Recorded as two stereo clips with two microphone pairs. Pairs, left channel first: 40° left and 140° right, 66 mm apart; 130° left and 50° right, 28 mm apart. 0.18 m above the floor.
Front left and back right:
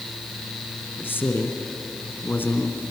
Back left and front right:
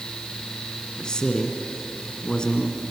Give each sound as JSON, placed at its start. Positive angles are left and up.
{"t": 1.0, "sound": "a man speaking", "azimuth_deg": 80, "distance_m": 1.9}